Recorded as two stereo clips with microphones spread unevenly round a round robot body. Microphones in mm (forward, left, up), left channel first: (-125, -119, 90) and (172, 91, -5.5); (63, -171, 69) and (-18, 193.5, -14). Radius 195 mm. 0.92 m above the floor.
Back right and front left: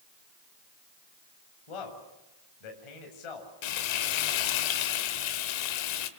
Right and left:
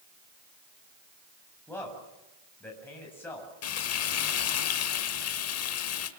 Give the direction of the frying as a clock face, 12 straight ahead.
4 o'clock.